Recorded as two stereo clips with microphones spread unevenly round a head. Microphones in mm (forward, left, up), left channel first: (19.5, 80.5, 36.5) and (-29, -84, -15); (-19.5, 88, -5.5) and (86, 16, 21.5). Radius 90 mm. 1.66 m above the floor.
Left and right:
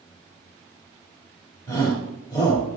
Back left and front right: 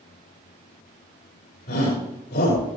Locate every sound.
1.7 s a shout: 145° left, 7 m